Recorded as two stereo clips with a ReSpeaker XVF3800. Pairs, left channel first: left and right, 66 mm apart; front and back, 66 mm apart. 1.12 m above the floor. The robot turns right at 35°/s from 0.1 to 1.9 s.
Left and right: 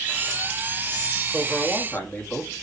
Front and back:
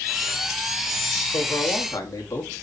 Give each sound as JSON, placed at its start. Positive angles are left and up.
{"t": 1.3, "sound": "a man speaking", "azimuth_deg": 5, "distance_m": 2.0}